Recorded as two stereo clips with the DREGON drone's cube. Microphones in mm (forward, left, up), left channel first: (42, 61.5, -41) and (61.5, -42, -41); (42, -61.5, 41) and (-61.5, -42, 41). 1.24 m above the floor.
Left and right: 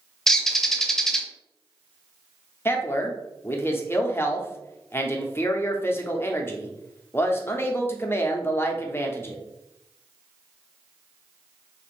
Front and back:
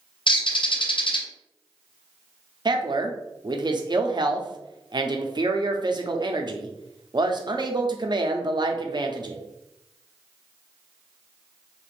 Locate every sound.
0.3 s a bird: 15° left, 0.5 m
2.6 s a man speaking: 155° left, 0.6 m